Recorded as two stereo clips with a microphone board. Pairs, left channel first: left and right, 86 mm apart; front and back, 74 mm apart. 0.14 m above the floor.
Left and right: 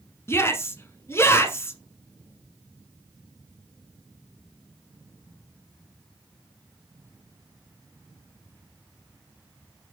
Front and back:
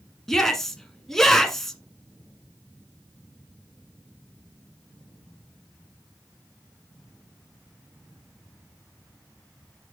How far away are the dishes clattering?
I don't hear dishes clattering.